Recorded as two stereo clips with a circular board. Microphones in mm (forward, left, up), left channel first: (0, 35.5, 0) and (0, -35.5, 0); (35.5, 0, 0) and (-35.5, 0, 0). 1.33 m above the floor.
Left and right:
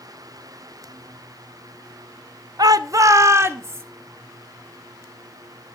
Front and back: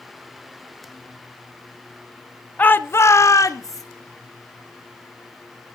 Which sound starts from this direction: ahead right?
A shout, at 2.6 s.